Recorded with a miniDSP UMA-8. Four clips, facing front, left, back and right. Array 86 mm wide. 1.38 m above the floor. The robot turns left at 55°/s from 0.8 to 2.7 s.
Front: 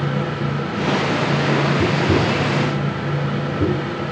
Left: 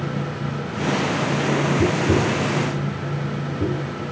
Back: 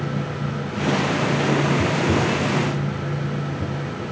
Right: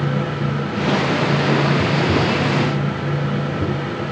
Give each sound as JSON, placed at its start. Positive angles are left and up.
{"t": 1.8, "sound": "tapping", "azimuth_deg": 60}